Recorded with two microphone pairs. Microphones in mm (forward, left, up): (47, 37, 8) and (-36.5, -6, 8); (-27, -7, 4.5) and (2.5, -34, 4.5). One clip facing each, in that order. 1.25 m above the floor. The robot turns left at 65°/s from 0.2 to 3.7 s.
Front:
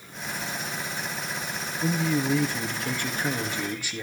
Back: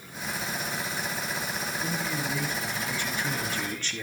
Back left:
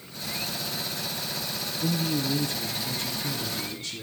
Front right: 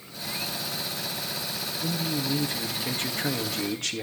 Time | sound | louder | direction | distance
1.8 | a man speaking | front 9 dB, back left 3 dB | 70° left | 2.5 m